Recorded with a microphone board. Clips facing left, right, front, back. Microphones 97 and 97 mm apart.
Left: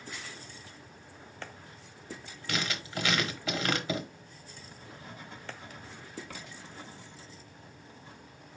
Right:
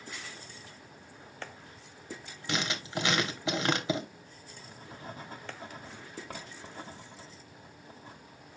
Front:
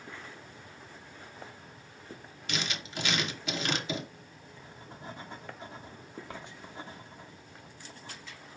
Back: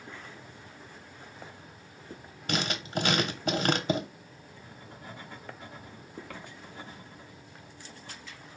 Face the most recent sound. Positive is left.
turn(degrees=-55)